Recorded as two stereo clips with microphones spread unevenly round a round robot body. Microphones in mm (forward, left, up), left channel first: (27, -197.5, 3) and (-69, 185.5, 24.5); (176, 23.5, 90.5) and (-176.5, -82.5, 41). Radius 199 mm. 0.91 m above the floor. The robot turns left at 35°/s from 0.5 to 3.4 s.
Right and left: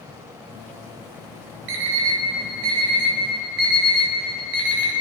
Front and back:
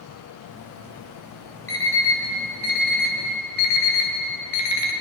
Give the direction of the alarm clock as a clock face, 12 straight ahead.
9 o'clock.